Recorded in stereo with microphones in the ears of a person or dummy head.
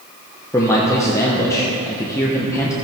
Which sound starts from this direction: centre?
A man speaking, at 0.5 s.